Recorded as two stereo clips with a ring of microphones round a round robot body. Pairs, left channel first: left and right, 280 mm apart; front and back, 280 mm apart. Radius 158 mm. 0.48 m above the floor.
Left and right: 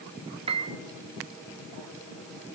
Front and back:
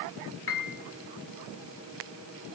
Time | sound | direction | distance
0.5 | a piano | 25° right | 1.8 m